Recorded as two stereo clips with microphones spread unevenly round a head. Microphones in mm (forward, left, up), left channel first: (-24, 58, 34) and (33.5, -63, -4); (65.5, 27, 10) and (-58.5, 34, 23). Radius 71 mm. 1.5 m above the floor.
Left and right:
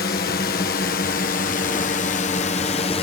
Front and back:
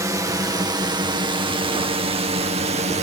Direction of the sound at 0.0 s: 115° left.